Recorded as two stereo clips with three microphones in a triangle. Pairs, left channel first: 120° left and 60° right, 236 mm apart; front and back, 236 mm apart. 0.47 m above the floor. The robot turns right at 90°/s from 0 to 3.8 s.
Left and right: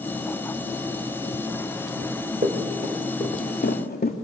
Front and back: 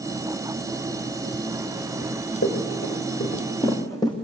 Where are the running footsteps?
65° right, 4.5 m; by 4.2 s 70° left, 1.8 m.